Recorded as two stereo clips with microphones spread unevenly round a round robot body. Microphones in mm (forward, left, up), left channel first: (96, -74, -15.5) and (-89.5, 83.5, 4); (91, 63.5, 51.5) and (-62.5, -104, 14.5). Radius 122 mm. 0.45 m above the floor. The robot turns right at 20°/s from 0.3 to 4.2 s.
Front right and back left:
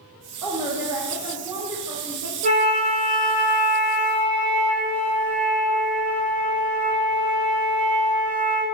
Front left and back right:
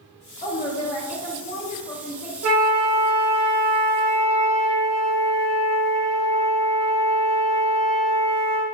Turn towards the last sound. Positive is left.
turn(degrees=-125)